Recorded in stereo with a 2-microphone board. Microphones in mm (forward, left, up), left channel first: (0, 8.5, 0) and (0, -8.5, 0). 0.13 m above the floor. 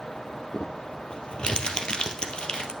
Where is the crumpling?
60° left (ahead or behind), 1.8 m.